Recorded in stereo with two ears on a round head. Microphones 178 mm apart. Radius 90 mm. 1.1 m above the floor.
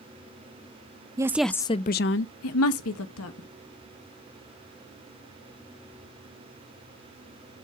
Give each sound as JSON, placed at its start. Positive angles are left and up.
{"t": 1.2, "sound": "a woman speaking", "side_deg": -20, "distance_m": 0.6}